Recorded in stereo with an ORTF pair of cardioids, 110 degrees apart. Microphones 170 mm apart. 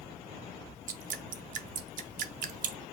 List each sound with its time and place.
0.9 s dripping: 55° right, 0.7 m